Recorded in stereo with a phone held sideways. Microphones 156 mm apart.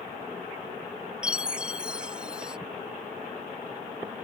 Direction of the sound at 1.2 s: 5° right (ahead or behind).